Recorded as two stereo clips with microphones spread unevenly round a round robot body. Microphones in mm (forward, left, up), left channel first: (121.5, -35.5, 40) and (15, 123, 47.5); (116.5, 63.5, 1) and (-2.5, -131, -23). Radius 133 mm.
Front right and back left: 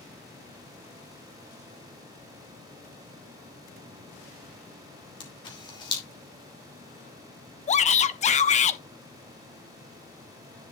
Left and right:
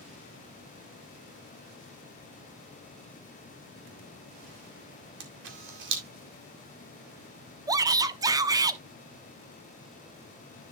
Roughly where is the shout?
Ahead right.